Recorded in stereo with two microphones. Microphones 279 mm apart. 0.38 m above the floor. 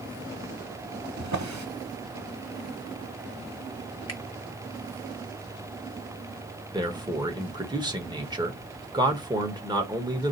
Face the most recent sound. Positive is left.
turn(degrees=-15)  # may be behind; listen again after turning